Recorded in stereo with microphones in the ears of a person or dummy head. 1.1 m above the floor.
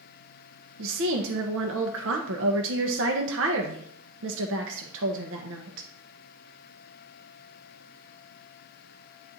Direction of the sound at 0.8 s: 60° right (ahead or behind).